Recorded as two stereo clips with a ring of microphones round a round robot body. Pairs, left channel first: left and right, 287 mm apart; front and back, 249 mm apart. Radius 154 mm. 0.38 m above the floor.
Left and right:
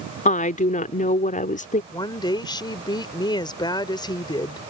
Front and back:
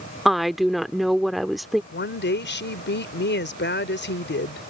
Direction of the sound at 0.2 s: 90° left.